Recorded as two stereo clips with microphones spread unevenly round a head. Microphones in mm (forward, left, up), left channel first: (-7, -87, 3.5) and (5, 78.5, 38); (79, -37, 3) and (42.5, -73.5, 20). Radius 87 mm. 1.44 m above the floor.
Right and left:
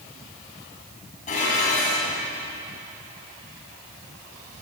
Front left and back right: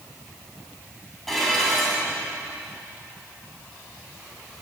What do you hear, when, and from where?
1.3 s dishes clattering: 45° right, 7.5 m